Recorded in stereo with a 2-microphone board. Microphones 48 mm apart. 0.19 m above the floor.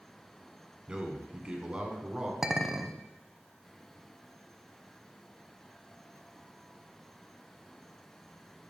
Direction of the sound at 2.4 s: 10° right (ahead or behind).